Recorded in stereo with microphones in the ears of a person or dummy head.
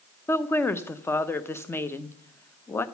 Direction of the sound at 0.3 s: 15° left (ahead or behind).